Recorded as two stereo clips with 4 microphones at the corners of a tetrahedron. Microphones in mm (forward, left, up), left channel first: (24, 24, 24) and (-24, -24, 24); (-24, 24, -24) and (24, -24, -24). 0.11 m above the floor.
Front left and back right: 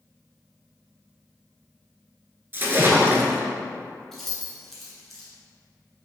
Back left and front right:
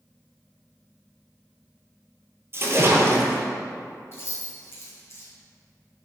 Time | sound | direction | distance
2.5 | a splash | 85° right | 0.8 m
4.1 | keys jangling | 125° left | 1.4 m